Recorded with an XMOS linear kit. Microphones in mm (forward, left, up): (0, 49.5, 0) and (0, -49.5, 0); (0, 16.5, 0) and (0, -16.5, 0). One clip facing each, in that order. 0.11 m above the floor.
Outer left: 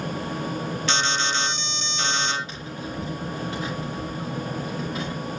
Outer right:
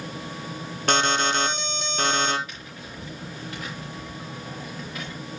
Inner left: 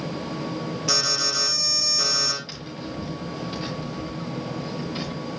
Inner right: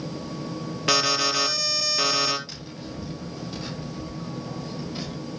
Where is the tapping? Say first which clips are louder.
Outer left 7 dB, inner left 3 dB; 25° left (ahead or behind), 5 m.